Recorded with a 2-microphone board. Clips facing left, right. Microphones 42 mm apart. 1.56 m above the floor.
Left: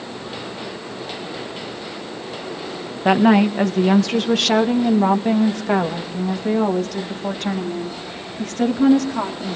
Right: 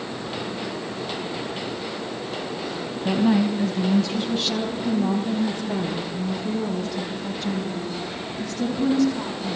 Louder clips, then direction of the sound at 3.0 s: Left 6 dB; 60° left (ahead or behind).